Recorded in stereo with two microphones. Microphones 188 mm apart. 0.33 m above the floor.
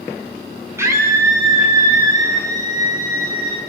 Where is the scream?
15° right (ahead or behind), 3 m; by 3.6 s 20° right (ahead or behind), 7 m.